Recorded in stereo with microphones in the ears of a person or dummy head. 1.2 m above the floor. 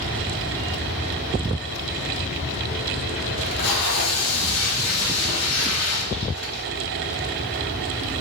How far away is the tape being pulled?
About 3 m.